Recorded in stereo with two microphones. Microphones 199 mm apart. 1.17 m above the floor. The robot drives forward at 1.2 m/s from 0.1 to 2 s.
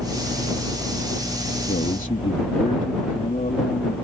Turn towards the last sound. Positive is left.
turn(degrees=40)  # may be behind; listen again after turning